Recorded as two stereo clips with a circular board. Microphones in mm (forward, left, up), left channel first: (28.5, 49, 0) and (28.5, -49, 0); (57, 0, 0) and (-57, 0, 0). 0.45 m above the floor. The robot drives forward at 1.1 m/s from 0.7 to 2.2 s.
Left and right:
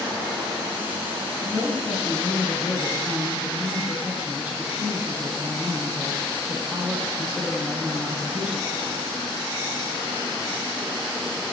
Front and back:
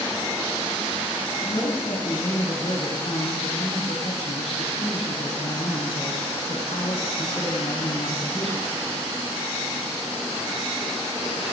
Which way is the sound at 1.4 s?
10° right.